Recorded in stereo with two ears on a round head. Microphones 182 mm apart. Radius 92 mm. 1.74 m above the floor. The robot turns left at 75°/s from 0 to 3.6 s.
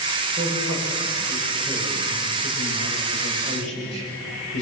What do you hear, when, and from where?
0.4 s a man speaking: 60° right, 9 m; by 4.6 s 60° left, 9 m